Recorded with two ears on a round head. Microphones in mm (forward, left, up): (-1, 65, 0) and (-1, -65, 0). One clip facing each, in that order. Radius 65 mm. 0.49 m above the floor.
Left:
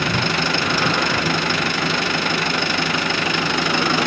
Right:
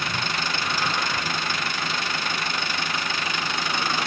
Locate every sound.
0.0 s an engine running: 55° left (ahead or behind)